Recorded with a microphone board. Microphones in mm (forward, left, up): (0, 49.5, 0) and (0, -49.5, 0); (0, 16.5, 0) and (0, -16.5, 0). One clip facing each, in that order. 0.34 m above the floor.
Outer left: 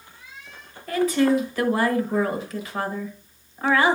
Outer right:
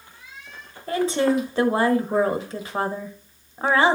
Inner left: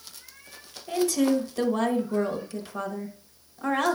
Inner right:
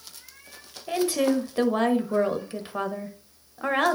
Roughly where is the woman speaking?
Right.